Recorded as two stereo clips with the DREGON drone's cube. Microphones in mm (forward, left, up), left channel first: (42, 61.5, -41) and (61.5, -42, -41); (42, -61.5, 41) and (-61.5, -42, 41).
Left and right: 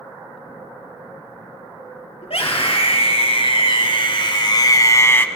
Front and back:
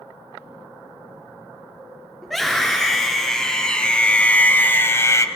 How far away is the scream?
About 4.5 m.